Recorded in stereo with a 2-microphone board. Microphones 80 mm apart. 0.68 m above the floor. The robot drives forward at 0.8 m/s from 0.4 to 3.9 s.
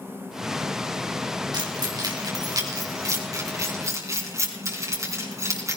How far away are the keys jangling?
About 3.5 m.